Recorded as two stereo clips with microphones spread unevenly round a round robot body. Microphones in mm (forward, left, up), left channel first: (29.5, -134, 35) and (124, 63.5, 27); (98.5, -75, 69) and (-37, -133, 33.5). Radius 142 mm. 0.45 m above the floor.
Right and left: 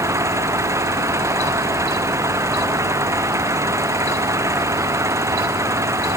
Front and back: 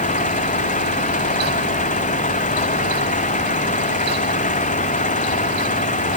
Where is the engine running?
15° right.